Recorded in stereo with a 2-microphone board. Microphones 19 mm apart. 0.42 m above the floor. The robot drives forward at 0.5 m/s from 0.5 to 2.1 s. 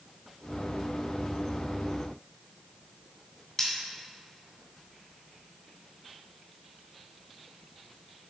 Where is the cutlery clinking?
25° left (ahead or behind), 2.5 m.